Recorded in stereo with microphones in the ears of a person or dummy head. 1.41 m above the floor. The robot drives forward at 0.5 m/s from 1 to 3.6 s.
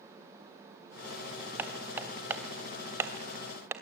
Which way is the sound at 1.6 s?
10° right (ahead or behind).